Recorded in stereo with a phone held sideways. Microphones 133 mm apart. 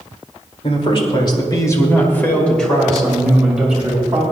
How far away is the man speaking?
About 2.5 m.